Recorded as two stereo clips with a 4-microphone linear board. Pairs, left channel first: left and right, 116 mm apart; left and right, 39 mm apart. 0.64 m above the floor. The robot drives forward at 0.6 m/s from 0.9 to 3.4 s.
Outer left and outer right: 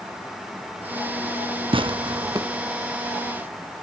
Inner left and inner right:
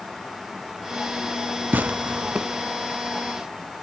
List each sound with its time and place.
1.7 s tearing paper: 50° right (ahead or behind), 0.6 m; by 2.5 s 30° right (ahead or behind), 0.9 m